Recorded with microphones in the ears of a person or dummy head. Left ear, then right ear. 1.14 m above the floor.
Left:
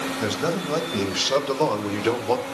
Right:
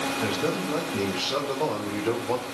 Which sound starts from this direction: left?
A man speaking, at 0.2 s.